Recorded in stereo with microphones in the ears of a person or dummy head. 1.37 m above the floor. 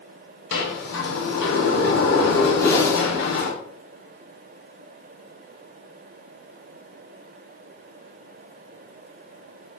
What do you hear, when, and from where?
0.5 s a sliding door: 75° left (ahead or behind), 2.5 m
2.6 s a whoosh: 20° left (ahead or behind), 1.5 m